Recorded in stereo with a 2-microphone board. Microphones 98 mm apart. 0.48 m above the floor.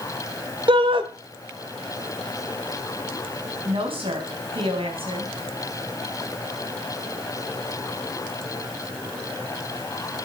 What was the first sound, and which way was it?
A shout, 60° right (ahead or behind).